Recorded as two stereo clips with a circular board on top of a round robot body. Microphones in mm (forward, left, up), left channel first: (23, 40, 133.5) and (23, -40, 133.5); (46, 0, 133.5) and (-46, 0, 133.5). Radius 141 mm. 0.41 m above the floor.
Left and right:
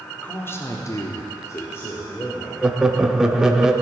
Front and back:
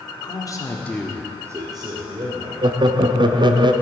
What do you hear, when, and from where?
0.2 s a man speaking: 30° left, 1.5 m; by 2.5 s 160° left, 2 m
2.6 s laughter: 170° right, 1.1 m